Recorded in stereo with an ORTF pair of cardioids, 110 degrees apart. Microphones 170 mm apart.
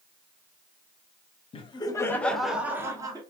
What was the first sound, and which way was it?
Laughter, 35° left.